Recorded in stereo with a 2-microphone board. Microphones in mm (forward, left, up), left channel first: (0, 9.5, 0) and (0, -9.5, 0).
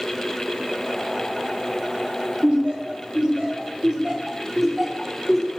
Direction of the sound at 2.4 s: 65° right (ahead or behind).